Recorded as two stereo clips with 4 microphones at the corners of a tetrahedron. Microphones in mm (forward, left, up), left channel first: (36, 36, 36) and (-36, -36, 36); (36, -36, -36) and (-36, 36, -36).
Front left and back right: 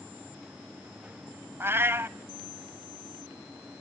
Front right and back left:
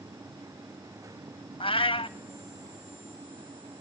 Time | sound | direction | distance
1.6 | a cat meowing | 70° right | 0.5 m